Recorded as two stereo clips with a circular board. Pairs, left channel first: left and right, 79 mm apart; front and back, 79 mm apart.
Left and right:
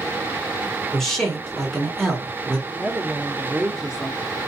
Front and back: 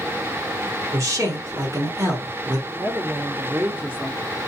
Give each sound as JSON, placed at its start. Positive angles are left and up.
{"t": 0.9, "sound": "a man speaking", "azimuth_deg": 170, "distance_m": 1.3}
{"t": 2.7, "sound": "a woman speaking", "azimuth_deg": -155, "distance_m": 0.7}